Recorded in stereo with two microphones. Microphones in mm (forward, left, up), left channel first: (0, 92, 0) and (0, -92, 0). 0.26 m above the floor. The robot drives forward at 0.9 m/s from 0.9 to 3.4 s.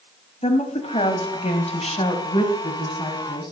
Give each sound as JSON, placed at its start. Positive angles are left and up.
{"t": 0.4, "sound": "a woman speaking", "side_deg": 35, "distance_m": 1.5}